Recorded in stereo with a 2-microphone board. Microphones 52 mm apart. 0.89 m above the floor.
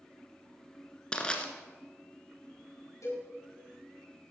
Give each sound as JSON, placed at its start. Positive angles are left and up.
{"t": 1.1, "sound": "crushing", "side_deg": 15, "distance_m": 1.7}
{"t": 3.0, "sound": "a cowbell", "side_deg": 85, "distance_m": 6.0}